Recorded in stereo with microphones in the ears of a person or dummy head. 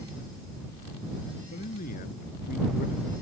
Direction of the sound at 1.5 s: 45° left (ahead or behind).